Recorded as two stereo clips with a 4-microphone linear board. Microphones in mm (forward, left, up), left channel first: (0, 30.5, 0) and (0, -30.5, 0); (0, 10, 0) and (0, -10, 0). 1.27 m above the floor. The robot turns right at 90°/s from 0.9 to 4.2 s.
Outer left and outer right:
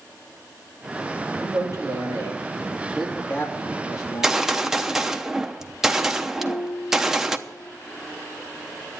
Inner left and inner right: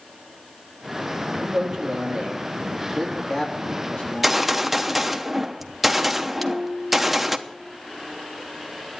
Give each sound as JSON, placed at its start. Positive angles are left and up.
{"t": 1.4, "sound": "a man speaking", "azimuth_deg": -150, "distance_m": 3.0}
{"t": 4.0, "sound": "a gunshot", "side_deg": -20, "distance_m": 0.8}
{"t": 6.4, "sound": "a piano", "side_deg": 65, "distance_m": 4.5}